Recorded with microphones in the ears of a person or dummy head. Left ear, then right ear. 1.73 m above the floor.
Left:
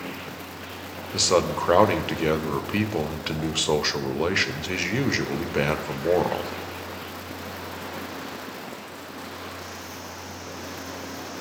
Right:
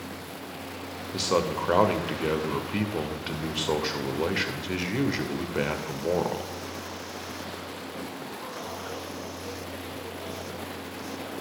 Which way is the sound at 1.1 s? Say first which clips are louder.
Left 4 dB; 15° left (ahead or behind).